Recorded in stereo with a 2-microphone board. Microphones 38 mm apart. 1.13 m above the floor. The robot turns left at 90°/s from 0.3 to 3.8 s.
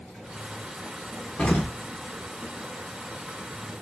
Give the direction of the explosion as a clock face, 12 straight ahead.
7 o'clock.